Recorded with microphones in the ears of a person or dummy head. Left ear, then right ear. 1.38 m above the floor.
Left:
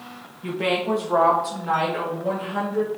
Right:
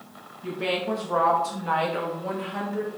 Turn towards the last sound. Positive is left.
turn(degrees=-35)  # may be behind; listen again after turning